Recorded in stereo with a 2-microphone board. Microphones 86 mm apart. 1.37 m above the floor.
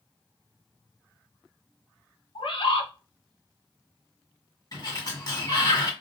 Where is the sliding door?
45° left (ahead or behind), 1.8 m.